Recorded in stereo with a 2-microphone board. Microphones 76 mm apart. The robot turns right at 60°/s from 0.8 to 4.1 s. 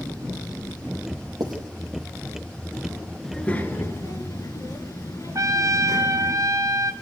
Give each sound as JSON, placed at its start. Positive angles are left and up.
{"t": 1.4, "sound": "writing", "side_deg": -70, "distance_m": 5.5}
{"t": 3.2, "sound": "a child speaking", "azimuth_deg": 5, "distance_m": 2.5}
{"t": 5.3, "sound": "a trumpet", "side_deg": -50, "distance_m": 1.2}